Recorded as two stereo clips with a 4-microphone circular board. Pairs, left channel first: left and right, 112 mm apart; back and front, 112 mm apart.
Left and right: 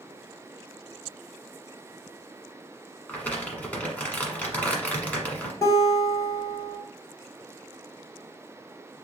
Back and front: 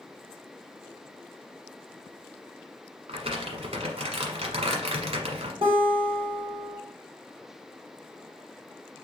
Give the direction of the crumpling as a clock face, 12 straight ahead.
12 o'clock.